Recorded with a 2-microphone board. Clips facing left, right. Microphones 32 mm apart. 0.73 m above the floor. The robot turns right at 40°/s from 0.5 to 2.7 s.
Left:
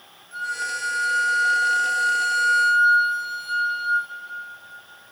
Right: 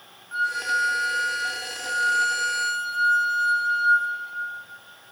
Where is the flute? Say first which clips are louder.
Right 4 dB; 55° right, 0.7 m; by 4.1 s 35° left, 0.7 m.